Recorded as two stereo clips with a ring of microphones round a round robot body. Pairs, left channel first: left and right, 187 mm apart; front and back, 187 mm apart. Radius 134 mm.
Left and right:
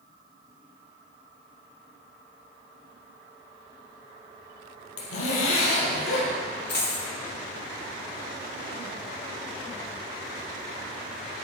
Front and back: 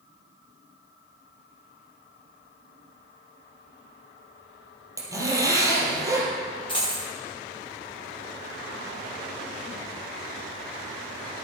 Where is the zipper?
105° left, 3 m.